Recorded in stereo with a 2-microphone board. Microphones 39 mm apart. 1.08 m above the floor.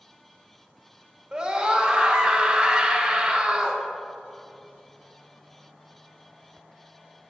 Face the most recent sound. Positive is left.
turn(degrees=-15)  # may be behind; listen again after turning